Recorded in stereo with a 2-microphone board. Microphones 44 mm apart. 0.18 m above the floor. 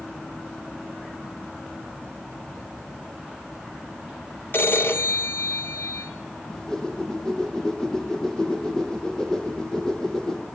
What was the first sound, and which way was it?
A phone ringing, 55° left (ahead or behind).